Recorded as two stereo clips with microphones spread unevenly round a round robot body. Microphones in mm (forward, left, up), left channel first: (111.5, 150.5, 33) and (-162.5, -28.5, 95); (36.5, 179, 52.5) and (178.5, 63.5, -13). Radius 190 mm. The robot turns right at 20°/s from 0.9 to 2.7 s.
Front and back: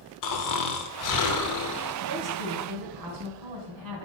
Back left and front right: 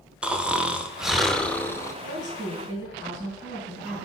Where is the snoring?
35° left, 0.9 m; by 1.9 s 55° left, 0.9 m.